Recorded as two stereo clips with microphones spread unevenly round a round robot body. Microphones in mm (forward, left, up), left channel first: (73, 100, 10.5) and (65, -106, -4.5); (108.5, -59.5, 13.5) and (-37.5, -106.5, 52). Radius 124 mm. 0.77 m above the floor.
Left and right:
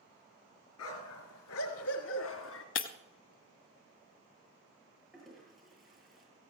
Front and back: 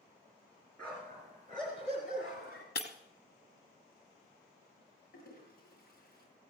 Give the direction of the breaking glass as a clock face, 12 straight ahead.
10 o'clock.